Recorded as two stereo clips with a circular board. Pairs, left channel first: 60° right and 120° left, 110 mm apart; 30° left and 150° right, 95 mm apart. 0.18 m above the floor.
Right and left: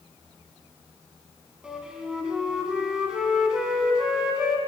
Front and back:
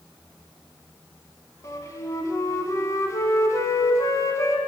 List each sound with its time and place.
1.6 s a flute: 45° left, 0.8 m